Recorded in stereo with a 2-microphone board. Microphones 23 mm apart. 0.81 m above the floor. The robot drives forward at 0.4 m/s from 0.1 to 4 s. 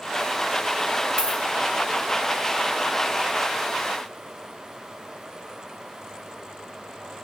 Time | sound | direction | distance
1.2 | a dropped coin | 50° right (ahead or behind) | 1.1 m